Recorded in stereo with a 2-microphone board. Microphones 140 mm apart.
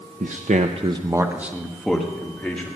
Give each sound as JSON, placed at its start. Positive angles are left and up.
{"t": 0.2, "sound": "a man speaking", "side_deg": -65, "distance_m": 0.8}